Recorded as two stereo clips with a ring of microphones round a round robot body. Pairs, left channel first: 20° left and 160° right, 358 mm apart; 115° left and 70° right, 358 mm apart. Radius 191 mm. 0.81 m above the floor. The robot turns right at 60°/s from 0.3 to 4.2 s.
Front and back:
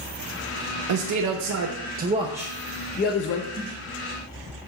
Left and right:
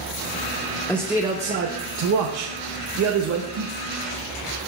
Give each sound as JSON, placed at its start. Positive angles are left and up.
{"t": 0.9, "sound": "a man speaking", "azimuth_deg": -165, "distance_m": 0.8}
{"t": 3.5, "sound": "a snare drum", "azimuth_deg": -85, "distance_m": 2.5}